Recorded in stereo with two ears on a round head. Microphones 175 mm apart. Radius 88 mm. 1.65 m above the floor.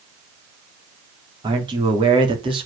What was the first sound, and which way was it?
A man speaking, 25° right (ahead or behind).